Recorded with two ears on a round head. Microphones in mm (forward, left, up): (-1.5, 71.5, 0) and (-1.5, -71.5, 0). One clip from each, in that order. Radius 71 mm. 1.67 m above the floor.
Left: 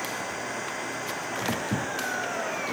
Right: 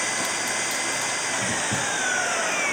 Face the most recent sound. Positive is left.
turn(degrees=-65)  # may be behind; listen again after turning